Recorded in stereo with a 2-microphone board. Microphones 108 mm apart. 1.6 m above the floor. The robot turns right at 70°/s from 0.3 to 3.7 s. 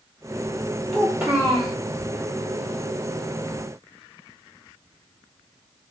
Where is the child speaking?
Straight behind, 1.4 m; by 1.8 s 120° right, 1.4 m.